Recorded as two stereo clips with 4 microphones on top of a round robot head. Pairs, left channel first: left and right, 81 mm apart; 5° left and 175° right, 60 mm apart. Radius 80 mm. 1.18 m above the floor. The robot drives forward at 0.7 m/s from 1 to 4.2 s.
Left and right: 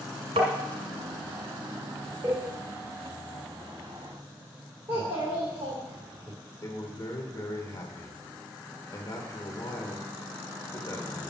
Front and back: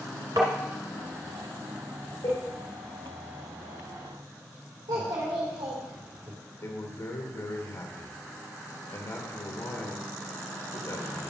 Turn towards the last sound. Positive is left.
turn(degrees=35)